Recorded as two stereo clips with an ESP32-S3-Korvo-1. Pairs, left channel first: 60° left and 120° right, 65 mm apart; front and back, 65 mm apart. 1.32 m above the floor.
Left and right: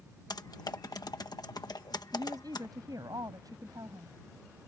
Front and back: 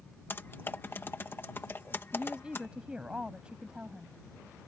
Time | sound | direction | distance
0.3 | typing on a keyboard | 55° left | ?
2.1 | a woman speaking | 105° right | ?